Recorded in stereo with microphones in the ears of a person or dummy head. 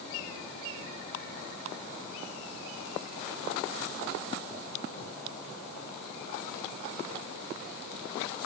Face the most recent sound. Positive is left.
No sound to turn to.